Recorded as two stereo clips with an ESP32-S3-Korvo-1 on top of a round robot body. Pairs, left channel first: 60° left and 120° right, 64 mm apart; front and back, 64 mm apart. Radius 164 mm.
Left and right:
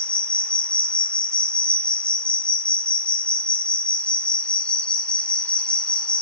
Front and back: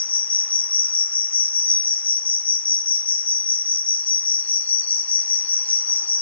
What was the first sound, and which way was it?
An insect, 15° left.